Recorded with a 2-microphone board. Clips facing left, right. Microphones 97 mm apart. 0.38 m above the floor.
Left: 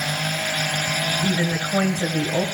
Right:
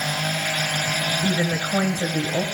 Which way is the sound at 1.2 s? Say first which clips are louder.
Even; 30° right (ahead or behind).